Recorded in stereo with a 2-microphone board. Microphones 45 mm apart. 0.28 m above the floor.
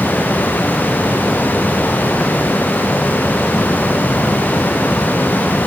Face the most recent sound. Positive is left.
No sound to turn to.